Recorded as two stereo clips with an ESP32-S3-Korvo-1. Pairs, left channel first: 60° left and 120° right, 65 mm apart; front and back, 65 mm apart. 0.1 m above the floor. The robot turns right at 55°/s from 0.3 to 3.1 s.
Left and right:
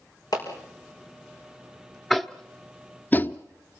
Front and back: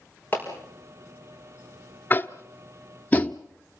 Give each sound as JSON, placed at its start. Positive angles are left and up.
{"t": 0.3, "sound": "a clap", "azimuth_deg": 60, "distance_m": 6.0}
{"t": 2.1, "sound": "tapping", "azimuth_deg": -20, "distance_m": 0.7}